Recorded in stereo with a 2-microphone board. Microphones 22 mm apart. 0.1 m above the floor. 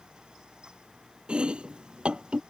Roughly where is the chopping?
Right.